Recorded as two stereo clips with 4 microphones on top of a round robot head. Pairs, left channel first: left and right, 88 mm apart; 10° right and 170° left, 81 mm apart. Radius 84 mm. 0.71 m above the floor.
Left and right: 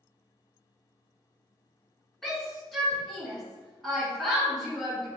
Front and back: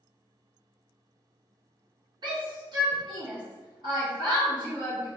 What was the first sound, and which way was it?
A shout, 175° left.